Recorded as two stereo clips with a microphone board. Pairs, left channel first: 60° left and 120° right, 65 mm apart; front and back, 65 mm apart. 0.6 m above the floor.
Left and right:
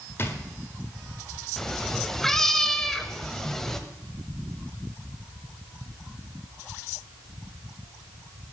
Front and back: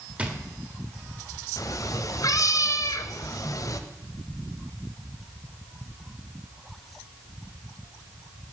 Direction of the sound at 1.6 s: 25° right.